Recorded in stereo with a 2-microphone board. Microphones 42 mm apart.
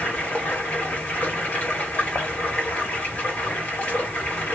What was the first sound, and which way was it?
Running water, 45° left (ahead or behind).